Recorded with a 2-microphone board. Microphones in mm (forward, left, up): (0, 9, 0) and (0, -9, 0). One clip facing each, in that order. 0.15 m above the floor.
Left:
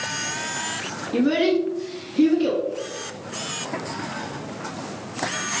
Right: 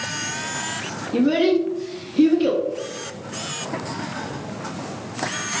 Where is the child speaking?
20° left (ahead or behind), 1.2 m; by 2.6 s 15° right (ahead or behind), 0.7 m.